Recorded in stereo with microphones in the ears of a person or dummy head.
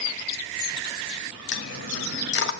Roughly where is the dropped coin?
Left.